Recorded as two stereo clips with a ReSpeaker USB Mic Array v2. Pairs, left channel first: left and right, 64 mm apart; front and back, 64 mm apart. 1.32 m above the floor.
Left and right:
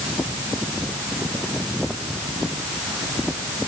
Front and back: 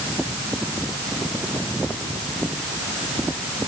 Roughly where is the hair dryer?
I don't hear a hair dryer.